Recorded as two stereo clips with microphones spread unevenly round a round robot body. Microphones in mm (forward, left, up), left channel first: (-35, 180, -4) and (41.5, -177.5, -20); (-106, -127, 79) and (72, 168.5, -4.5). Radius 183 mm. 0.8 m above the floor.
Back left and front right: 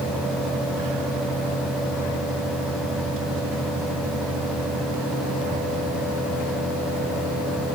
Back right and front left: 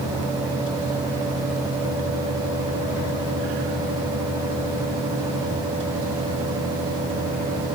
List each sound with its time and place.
Only background noise.